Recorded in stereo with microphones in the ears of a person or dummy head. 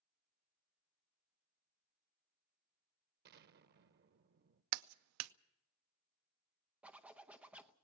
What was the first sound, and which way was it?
An explosion, 55° right (ahead or behind).